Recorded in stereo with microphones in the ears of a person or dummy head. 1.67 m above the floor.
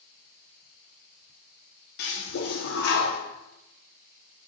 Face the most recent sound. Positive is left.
turn(degrees=50)  # may be behind; listen again after turning